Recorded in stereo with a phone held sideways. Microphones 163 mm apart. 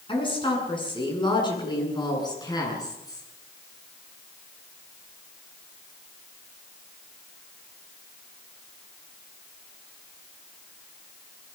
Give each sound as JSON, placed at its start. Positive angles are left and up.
{"t": 0.1, "sound": "a woman speaking", "side_deg": 30, "distance_m": 8.5}